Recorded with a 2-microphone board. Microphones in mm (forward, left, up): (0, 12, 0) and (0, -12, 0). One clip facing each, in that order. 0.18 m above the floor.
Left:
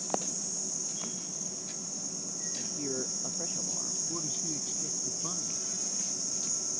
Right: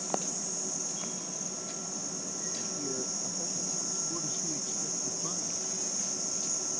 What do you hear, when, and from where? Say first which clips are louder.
2.5 s a man speaking: left 2 dB; 20° left (ahead or behind)
4.1 s a man speaking: even; 5° left (ahead or behind)